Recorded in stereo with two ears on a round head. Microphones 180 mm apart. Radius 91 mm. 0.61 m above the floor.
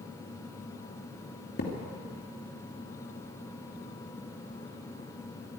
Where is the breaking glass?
I don't hear breaking glass.